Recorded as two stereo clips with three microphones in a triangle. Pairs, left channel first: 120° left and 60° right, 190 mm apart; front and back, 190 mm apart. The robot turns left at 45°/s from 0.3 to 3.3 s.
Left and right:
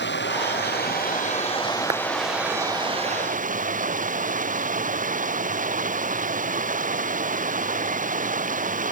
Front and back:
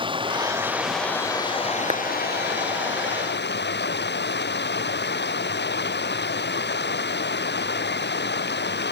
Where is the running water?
120° left; by 8.9 s 15° right.